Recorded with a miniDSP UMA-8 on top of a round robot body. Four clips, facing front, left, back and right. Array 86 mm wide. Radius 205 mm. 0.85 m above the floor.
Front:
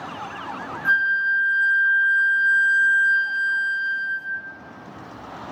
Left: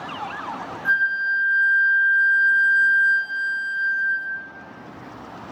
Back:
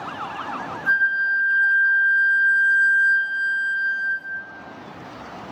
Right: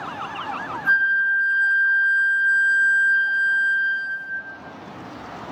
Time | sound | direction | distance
0.8 | a flute | 5° left | 0.5 m